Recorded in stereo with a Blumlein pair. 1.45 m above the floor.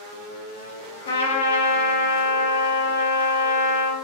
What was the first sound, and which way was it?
A trumpet, 65° left.